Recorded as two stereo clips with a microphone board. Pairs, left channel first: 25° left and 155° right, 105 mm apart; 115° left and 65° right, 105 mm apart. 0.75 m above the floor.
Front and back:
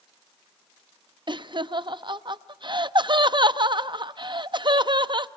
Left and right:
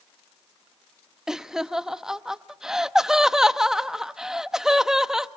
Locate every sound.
1.3 s laughter: 150° right, 0.6 m